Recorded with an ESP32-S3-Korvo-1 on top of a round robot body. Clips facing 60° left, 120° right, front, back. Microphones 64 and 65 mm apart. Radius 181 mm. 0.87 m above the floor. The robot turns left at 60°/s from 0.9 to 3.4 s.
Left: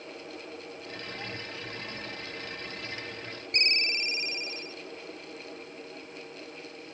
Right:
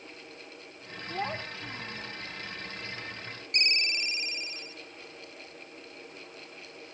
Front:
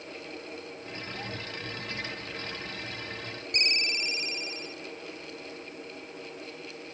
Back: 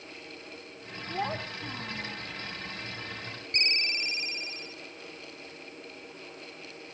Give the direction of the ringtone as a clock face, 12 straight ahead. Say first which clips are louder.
Left 1 dB, front 1 dB; 8 o'clock.